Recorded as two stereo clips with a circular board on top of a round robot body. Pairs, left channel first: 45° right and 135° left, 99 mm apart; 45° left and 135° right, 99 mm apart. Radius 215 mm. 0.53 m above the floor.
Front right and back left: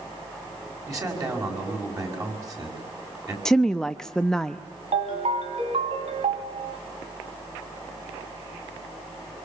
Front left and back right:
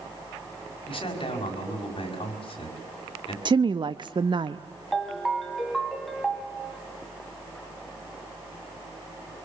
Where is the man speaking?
80° left, 5.5 m.